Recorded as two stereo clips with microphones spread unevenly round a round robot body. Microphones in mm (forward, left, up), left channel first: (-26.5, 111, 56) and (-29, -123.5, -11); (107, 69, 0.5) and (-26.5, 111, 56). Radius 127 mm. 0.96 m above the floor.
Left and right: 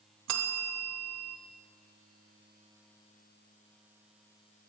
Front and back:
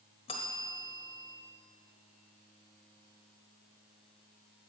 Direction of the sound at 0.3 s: 95° right.